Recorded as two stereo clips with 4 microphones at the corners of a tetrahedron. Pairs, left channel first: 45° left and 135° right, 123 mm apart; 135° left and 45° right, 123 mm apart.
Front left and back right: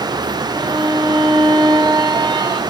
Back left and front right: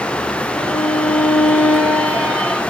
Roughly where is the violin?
Behind.